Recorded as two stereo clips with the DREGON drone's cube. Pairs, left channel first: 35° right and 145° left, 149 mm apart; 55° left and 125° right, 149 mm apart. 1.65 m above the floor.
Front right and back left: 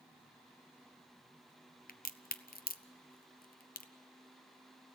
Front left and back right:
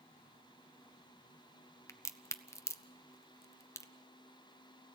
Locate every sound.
1.9 s a crack: 15° right, 0.7 m